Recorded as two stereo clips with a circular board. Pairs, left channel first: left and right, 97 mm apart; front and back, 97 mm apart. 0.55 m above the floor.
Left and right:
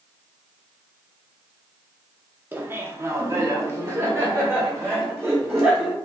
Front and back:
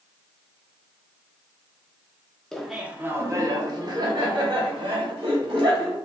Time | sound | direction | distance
2.5 | laughter | 75° right | 0.7 m